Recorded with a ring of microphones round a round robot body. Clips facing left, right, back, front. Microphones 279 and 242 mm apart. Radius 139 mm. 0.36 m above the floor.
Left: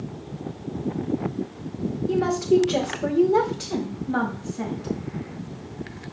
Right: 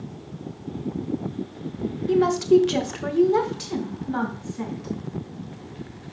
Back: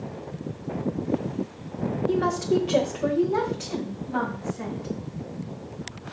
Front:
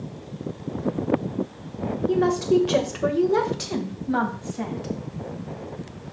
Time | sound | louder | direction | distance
2.1 | a woman speaking | right 3 dB, front 4 dB | 105° right | 1.0 m